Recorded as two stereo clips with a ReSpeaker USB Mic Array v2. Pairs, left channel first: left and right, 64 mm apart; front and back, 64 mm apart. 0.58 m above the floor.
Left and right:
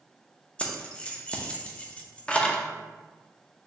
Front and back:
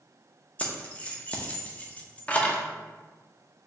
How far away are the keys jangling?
About 0.6 m.